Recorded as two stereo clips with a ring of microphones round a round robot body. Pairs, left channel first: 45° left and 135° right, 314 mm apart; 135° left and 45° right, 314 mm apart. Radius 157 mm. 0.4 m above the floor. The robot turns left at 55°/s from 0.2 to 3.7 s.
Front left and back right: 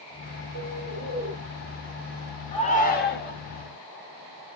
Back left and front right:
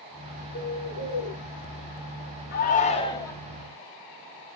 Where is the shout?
105° left, 1.4 m; by 3.3 s 55° left, 1.4 m.